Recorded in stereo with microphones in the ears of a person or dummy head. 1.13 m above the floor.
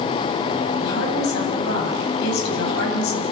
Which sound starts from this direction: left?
A woman speaking, at 0.8 s.